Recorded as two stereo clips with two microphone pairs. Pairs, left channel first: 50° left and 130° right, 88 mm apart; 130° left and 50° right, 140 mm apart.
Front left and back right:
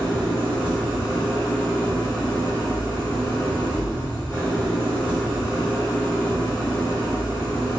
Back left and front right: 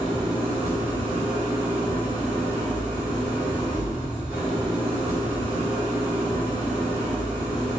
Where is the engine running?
125° right, 1.3 m.